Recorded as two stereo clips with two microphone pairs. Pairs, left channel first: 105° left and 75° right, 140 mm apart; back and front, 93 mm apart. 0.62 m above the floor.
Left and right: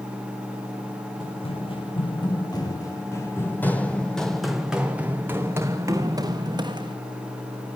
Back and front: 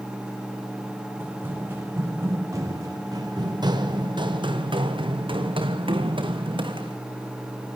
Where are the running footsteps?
65° left, 3 m; by 7.0 s 20° right, 3 m.